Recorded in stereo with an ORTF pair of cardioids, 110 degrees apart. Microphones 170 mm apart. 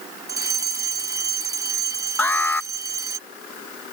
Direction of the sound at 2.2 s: 10° left.